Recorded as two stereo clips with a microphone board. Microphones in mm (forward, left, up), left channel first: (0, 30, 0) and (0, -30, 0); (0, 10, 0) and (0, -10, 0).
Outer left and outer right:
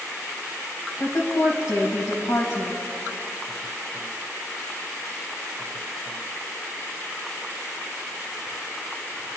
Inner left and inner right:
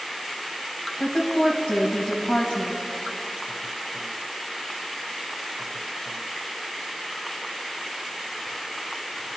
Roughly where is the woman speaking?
Left.